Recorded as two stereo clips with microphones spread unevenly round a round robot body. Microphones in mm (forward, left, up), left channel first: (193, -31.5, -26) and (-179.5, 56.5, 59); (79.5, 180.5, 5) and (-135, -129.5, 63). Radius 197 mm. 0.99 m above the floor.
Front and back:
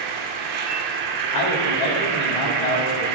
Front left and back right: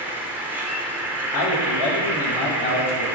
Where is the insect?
155° left, 1.2 m.